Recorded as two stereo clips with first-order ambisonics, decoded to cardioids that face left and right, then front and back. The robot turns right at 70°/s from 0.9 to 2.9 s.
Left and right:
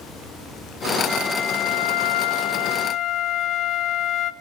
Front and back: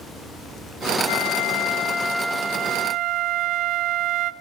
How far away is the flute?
About 0.8 m.